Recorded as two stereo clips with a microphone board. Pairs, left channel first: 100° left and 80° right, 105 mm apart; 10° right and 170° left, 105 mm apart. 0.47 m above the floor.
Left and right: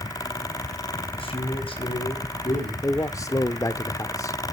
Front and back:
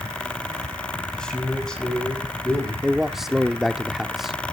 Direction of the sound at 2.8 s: 85° left.